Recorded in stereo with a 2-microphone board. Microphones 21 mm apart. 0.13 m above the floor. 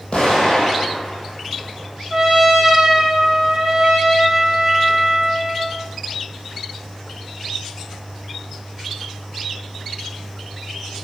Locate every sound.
0.1 s an explosion: 55° left (ahead or behind), 2.5 m
2.1 s a trumpet: 20° right (ahead or behind), 1.3 m